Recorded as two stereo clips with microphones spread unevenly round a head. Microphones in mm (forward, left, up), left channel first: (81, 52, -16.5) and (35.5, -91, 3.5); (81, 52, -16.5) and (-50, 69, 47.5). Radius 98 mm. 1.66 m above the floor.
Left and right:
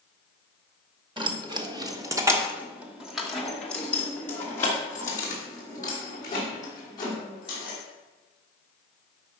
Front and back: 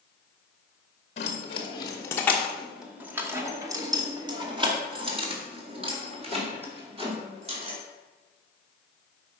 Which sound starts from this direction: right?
Keys jangling, at 1.2 s.